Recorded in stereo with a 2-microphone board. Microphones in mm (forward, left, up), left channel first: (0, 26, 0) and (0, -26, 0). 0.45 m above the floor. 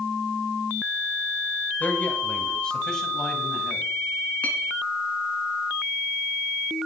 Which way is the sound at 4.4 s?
30° left (ahead or behind).